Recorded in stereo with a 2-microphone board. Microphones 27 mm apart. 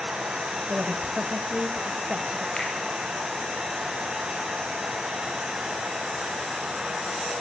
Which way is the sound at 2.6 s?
40° left (ahead or behind).